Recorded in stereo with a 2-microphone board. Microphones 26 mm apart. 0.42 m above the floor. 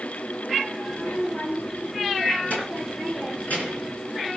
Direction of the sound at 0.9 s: 75° left (ahead or behind).